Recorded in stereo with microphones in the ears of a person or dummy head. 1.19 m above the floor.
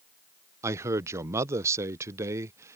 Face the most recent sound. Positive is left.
turn(degrees=-20)  # may be behind; listen again after turning